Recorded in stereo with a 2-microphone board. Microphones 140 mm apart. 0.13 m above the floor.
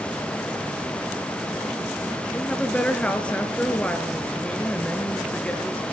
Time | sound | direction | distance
2.3 | a woman speaking | 10° left (ahead or behind) | 2 m